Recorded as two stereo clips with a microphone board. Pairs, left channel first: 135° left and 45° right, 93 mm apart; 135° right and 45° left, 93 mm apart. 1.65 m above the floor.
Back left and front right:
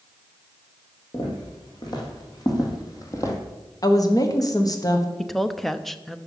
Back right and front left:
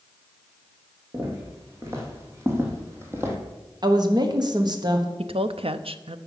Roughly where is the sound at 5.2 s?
Ahead left.